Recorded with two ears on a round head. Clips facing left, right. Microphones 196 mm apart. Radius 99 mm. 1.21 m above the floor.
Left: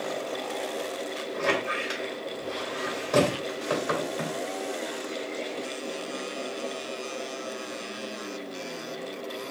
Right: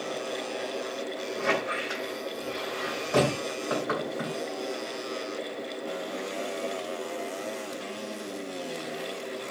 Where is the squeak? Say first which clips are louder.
Left 1 dB; 75° left (ahead or behind), 2 m.